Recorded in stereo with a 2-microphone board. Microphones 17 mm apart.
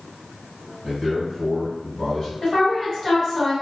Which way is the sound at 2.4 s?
25° left (ahead or behind).